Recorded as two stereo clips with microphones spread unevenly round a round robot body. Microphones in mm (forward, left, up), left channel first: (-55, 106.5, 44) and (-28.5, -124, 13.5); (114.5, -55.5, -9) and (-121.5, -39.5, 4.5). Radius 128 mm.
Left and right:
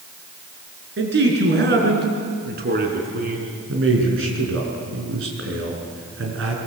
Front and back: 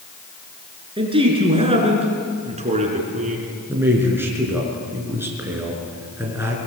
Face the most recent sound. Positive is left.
turn(degrees=-105)